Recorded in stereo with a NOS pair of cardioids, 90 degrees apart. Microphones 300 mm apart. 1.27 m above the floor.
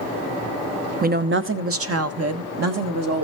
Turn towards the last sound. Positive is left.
turn(degrees=-60)